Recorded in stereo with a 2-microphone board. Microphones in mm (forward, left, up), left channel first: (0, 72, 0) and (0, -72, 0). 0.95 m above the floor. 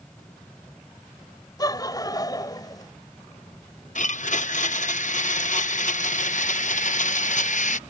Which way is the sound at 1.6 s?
25° left (ahead or behind).